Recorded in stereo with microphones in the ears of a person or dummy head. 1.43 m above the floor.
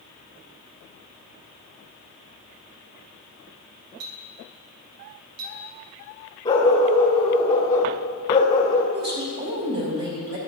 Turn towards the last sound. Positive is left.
turn(degrees=-65)  # may be behind; listen again after turning